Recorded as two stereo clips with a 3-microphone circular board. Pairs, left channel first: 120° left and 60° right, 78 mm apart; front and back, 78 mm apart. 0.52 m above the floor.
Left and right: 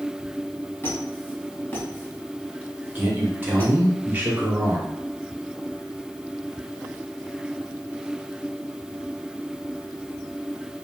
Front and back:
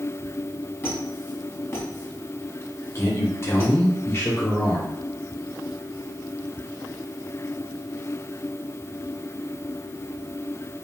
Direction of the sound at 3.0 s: 15° right.